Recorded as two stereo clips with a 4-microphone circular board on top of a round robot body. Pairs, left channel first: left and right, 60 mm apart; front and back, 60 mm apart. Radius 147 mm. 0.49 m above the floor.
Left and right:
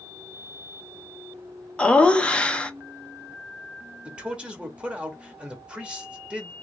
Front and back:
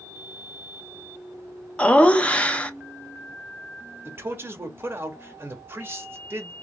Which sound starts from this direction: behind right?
A man speaking, at 4.0 s.